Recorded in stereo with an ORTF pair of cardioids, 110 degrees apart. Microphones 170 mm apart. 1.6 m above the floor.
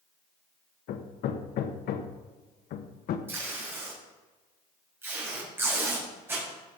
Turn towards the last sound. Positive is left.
turn(degrees=-15)